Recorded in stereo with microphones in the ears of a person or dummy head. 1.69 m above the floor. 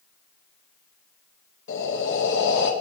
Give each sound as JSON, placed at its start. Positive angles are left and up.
{"t": 1.7, "sound": "breathing", "side_deg": 70, "distance_m": 1.8}